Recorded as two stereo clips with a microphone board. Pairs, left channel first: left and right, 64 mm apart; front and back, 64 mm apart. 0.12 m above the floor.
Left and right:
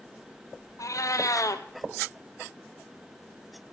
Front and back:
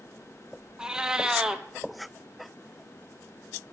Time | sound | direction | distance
0.8 | a cat meowing | 100° left | 1.3 m